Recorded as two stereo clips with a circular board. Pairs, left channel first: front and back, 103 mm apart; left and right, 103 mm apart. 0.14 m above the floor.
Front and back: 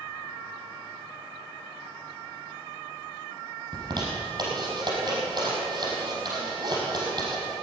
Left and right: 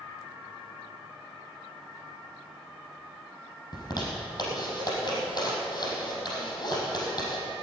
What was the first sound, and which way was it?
A zipper, 140° left.